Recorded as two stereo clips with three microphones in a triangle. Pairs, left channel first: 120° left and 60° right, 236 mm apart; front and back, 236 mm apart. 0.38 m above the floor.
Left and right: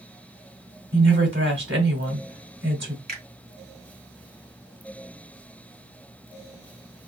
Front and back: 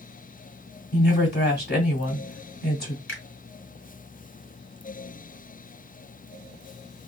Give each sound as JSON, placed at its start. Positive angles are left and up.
{"t": 0.9, "sound": "a woman speaking", "azimuth_deg": -40, "distance_m": 2.0}
{"t": 3.1, "sound": "a finger snap", "azimuth_deg": -20, "distance_m": 1.8}